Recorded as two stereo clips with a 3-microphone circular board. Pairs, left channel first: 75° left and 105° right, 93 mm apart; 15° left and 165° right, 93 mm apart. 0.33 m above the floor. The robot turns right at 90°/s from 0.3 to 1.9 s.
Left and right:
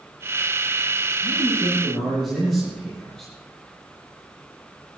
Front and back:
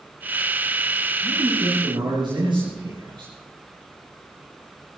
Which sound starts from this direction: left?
A man speaking, at 1.2 s.